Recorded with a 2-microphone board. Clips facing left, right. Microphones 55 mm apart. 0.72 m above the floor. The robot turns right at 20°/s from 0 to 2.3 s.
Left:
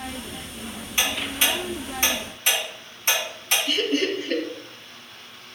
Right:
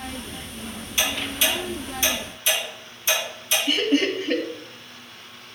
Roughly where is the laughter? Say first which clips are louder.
Right 3 dB; right.